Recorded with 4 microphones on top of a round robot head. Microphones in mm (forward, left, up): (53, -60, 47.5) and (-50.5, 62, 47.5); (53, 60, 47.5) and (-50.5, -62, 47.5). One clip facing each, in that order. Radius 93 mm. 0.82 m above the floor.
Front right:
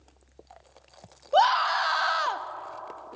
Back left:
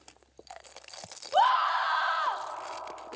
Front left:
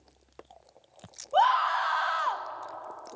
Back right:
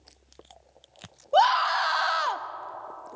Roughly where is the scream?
Right.